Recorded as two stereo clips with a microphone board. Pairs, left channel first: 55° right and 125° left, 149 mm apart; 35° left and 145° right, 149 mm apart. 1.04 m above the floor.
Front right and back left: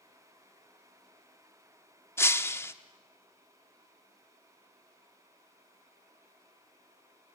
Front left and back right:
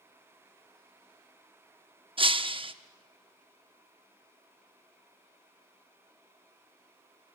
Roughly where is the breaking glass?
Behind right.